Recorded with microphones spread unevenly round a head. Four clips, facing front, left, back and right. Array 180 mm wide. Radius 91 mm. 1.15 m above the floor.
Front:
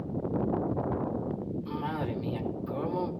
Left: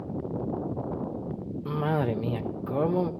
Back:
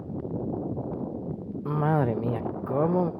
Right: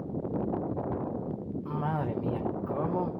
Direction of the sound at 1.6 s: 155° left.